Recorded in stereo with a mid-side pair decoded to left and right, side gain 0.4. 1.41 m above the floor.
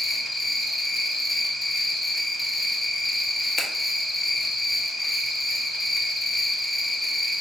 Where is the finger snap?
50° left, 0.9 m.